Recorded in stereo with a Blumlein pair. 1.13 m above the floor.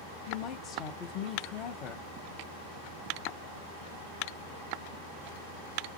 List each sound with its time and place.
0.3 s a woman speaking: 30° left, 0.8 m